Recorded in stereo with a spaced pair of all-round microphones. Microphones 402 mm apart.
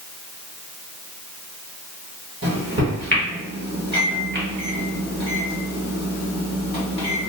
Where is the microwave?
30° right (ahead or behind), 1.4 m.